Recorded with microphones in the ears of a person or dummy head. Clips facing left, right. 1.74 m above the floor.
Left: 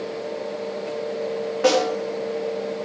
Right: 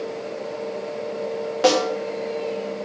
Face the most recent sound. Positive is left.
turn(degrees=-55)  # may be behind; listen again after turning